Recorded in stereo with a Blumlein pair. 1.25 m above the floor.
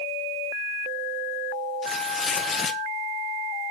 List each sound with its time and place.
1.8 s tearing paper: 20° left, 1.1 m